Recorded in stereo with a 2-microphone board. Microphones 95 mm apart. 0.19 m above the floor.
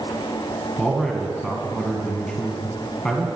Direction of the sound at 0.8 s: 5° left (ahead or behind).